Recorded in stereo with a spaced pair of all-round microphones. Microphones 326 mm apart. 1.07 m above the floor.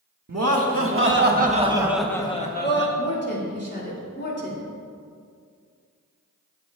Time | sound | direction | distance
0.3 | laughter | 50° right (ahead or behind) | 1.8 m
3.0 | a woman speaking | 35° left (ahead or behind) | 3 m